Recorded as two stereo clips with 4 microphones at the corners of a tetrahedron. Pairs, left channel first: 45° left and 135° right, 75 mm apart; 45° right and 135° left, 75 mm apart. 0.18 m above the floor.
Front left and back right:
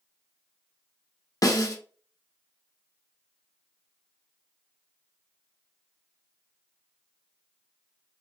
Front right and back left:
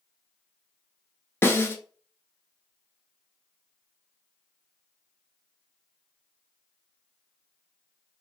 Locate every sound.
1.4 s a snare drum: 10° left, 0.7 m